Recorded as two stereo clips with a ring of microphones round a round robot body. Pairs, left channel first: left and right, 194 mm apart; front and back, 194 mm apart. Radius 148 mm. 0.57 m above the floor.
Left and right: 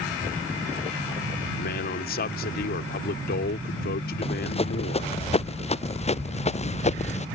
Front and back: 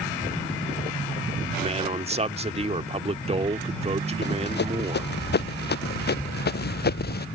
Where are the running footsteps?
30° left; by 7.3 s 35° left.